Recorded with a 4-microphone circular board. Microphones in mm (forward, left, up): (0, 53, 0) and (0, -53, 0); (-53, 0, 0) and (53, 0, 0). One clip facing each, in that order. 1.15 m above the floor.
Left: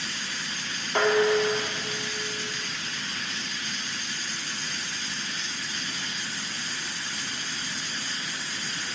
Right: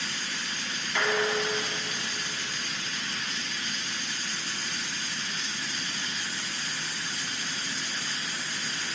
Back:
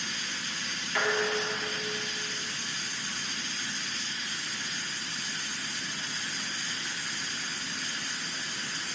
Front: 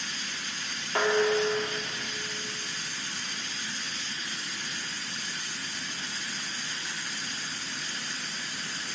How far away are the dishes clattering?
About 1.6 m.